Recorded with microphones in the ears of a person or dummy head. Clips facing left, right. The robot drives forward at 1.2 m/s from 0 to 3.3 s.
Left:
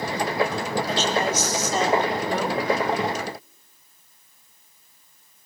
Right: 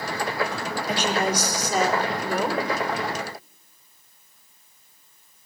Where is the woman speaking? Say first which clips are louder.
Right 2 dB; 15° right (ahead or behind), 2.5 m; by 2.6 s 10° right (ahead or behind), 4.5 m.